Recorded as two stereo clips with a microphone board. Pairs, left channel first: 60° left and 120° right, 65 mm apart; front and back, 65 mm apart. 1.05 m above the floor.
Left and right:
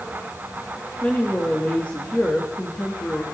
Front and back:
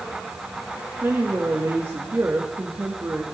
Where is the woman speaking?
125° left, 1.3 m.